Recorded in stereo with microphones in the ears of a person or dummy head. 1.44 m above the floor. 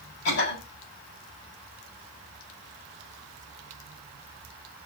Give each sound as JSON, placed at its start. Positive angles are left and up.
{"t": 0.2, "sound": "a cough", "side_deg": 60, "distance_m": 8.5}